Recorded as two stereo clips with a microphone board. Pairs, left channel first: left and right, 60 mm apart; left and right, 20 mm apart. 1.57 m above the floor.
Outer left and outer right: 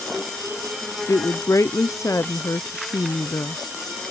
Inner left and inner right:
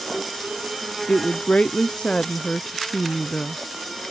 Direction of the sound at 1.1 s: 55° left (ahead or behind).